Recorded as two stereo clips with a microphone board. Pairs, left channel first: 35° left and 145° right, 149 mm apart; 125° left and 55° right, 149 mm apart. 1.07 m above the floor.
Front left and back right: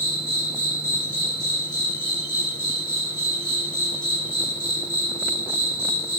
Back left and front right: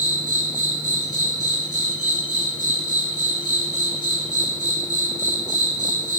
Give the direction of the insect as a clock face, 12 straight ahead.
10 o'clock.